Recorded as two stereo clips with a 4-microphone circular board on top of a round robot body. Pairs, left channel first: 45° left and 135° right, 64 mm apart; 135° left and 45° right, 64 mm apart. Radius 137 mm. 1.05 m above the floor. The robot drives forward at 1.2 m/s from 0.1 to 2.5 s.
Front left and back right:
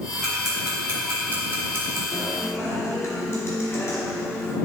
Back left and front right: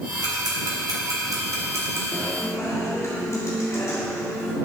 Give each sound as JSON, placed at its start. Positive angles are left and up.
{"t": 0.2, "sound": "ticking", "azimuth_deg": -45, "distance_m": 3.0}
{"t": 2.1, "sound": "a guitar", "azimuth_deg": 80, "distance_m": 1.7}